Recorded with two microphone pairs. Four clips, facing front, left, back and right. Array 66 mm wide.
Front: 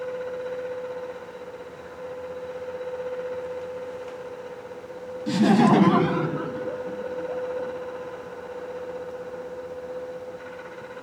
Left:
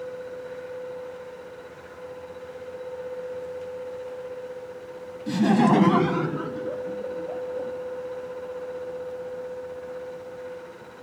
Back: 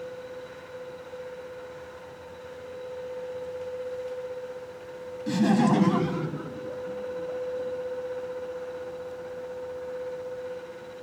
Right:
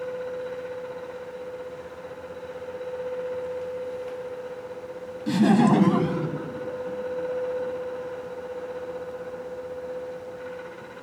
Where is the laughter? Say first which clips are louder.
Right 1 dB, front 4 dB; 70° right; by 7.7 s 60° left.